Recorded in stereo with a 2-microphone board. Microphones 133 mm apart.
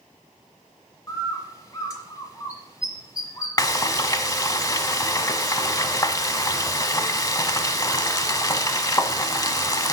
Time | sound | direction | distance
1.1 | a bird | 25° left (ahead or behind) | 1.5 m
3.6 | frying | 30° left (ahead or behind) | 0.7 m